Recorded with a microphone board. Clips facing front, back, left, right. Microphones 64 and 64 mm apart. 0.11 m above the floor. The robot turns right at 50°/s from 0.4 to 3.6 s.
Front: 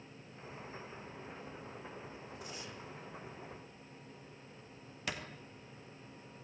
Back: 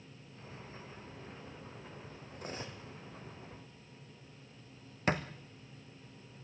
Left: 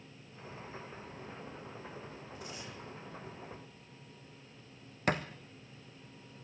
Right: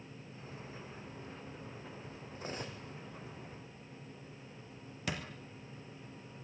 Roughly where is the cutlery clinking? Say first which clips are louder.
Back 7 dB, right 6 dB; behind right.